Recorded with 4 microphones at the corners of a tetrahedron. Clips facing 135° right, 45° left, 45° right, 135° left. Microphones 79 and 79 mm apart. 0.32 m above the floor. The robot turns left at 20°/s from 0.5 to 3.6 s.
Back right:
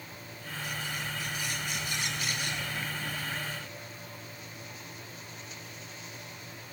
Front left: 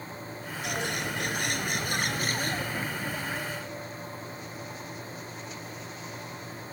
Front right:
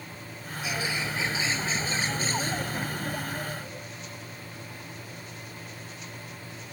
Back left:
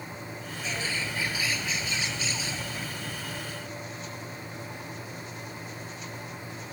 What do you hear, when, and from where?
0.6 s a bird: 35° left; by 3.9 s 25° right